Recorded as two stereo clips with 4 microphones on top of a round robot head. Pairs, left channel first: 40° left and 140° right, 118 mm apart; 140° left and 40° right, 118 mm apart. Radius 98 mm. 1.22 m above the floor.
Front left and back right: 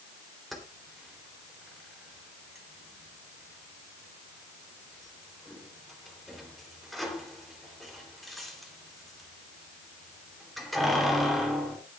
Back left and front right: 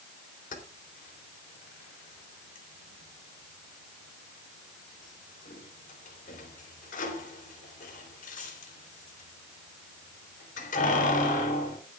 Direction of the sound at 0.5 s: 130° left.